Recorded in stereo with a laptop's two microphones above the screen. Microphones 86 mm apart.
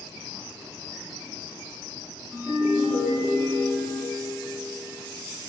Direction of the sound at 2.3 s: 15° right (ahead or behind).